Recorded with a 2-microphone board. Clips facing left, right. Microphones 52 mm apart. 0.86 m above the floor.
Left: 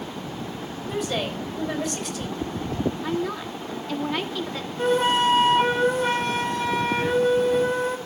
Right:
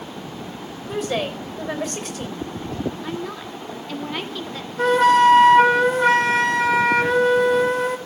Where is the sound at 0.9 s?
40° right (ahead or behind), 3.5 m.